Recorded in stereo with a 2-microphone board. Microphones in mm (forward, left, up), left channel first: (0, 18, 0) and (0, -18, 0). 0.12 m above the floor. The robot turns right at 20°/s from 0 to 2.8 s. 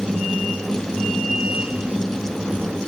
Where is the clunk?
No clunk in this recording.